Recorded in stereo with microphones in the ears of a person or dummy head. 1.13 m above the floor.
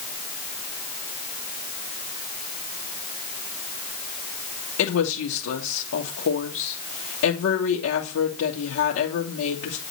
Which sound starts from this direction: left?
A woman speaking, at 4.8 s.